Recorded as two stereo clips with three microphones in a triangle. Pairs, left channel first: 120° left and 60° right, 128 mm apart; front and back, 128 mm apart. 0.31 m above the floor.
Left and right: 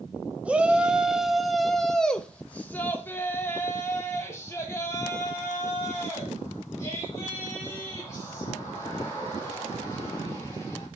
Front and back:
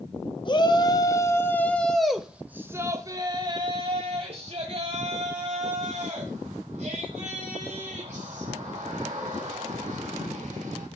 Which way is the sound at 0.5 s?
15° left.